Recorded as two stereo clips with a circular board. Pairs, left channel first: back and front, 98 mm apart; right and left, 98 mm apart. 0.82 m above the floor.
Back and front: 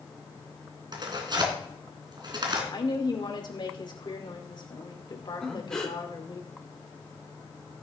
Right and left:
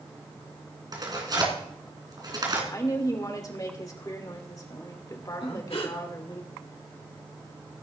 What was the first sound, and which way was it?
Tearing paper, 40° left.